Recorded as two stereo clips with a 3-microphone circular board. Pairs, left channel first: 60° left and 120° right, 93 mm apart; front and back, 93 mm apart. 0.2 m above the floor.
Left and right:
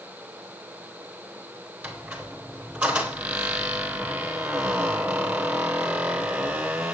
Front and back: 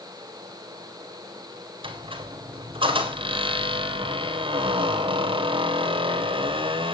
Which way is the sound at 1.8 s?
165° left.